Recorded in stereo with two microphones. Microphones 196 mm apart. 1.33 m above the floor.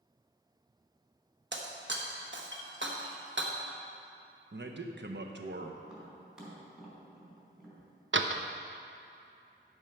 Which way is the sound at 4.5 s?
65° right (ahead or behind).